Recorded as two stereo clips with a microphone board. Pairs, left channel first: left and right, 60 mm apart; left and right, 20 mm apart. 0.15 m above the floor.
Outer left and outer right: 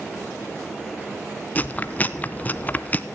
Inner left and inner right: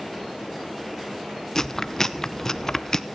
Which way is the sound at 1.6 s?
30° left (ahead or behind).